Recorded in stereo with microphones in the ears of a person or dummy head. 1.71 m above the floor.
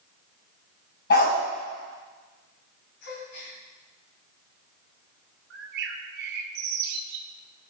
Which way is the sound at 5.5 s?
70° right (ahead or behind).